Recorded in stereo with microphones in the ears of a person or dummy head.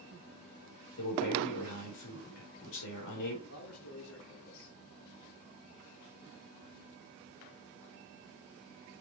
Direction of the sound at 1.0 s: 80° left.